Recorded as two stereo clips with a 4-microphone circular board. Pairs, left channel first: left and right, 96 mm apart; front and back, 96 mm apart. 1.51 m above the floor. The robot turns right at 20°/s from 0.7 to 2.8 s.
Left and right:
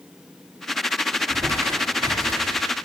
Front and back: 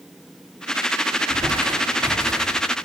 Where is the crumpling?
150° right, 6 m; by 2.6 s 120° right, 6 m.